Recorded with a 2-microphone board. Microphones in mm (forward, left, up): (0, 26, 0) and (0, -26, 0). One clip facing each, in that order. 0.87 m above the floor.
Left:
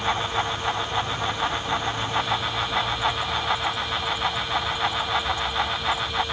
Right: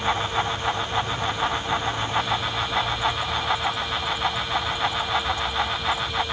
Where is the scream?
I don't hear a scream.